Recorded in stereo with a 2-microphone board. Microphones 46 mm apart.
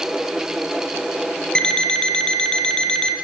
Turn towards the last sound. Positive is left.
turn(degrees=20)  # may be behind; listen again after turning